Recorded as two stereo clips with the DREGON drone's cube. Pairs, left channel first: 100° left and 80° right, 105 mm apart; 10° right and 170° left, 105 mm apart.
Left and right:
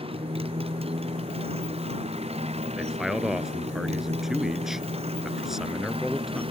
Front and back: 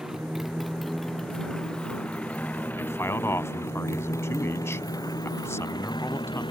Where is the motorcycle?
105° right; by 6.5 s 50° right.